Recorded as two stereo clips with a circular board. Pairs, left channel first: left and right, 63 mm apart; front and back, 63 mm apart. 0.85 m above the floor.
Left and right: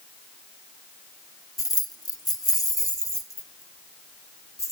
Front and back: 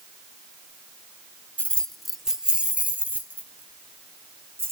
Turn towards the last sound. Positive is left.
turn(degrees=130)